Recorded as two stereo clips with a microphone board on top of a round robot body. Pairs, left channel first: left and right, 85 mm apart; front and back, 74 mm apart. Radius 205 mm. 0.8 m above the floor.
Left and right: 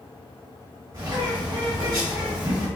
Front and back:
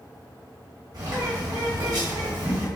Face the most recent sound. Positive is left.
turn(degrees=-140)